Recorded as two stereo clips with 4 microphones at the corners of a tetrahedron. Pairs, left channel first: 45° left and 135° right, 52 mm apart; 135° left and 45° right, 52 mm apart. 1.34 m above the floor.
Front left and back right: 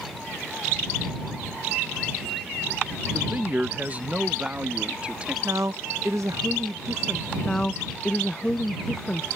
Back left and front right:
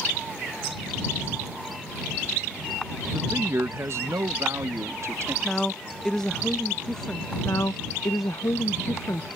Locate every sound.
3.1 s a man speaking: 85° right; by 5.3 s 70° right
5.4 s a woman speaking: 145° right
7.4 s a woman speaking: 120° left